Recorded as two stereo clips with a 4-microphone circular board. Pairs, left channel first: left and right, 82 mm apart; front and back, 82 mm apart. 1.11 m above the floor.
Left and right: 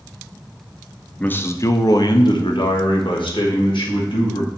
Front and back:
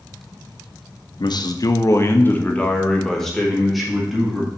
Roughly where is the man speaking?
Ahead.